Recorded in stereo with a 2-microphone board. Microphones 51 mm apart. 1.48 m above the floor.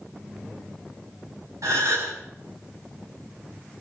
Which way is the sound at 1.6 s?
80° right.